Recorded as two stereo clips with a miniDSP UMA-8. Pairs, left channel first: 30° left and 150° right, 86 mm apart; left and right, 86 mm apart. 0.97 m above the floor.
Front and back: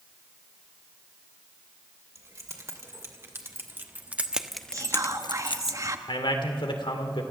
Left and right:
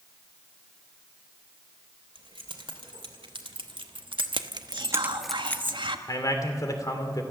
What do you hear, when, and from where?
2.1 s keys jangling: 100° right, 3 m; by 5.7 s 25° left, 0.9 m
4.7 s whispering: 105° right, 1.5 m
6.1 s a man speaking: 45° left, 2.5 m